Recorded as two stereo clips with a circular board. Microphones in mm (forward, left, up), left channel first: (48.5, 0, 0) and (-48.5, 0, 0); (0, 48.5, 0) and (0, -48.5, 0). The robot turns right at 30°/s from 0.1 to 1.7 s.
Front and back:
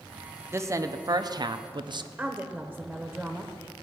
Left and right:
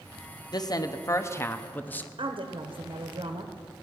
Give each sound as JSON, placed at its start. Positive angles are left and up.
{"t": 0.5, "sound": "a woman speaking", "azimuth_deg": 125, "distance_m": 0.7}
{"t": 2.2, "sound": "a woman speaking", "azimuth_deg": -95, "distance_m": 1.0}